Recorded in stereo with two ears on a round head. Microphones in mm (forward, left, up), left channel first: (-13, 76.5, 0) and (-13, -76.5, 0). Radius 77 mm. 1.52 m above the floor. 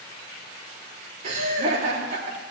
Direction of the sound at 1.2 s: 50° right (ahead or behind).